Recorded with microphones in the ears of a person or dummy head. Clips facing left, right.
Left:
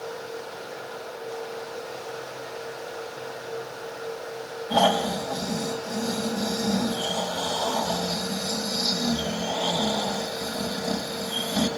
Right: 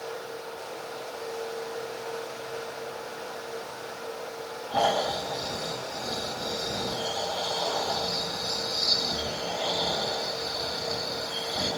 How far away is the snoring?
About 5.5 m.